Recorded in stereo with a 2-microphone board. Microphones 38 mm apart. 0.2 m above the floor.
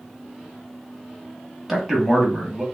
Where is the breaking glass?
No breaking glass in this recording.